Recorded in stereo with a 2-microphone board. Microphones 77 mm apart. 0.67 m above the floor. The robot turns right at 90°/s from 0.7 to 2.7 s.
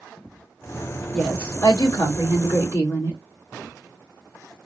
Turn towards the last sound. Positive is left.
turn(degrees=140)